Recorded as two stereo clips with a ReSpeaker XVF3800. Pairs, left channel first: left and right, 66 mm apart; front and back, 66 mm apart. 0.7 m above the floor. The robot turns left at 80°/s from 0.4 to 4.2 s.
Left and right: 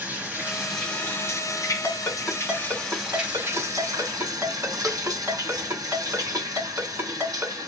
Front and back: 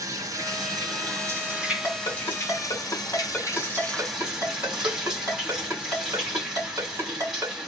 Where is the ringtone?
50° left, 2.5 m; by 7.5 s 140° right, 2.5 m.